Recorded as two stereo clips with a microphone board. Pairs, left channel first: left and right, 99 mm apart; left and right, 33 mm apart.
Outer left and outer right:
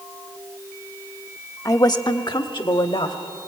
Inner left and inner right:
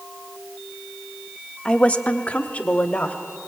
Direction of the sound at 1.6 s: 35° left (ahead or behind).